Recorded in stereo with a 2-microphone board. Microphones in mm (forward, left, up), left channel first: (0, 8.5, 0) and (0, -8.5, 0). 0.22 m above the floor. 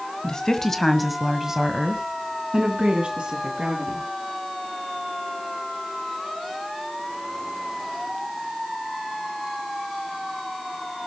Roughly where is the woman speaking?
Left.